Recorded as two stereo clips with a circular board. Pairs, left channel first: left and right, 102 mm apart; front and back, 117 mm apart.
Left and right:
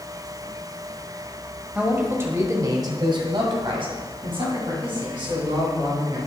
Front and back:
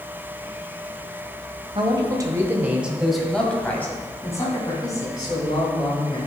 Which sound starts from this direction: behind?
A man speaking, at 1.8 s.